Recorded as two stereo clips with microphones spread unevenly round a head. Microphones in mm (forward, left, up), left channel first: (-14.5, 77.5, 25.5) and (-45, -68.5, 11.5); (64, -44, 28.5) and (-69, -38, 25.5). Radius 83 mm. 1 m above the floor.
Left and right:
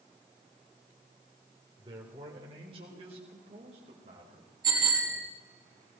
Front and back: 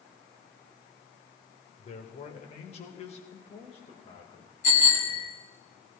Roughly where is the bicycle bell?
Ahead right.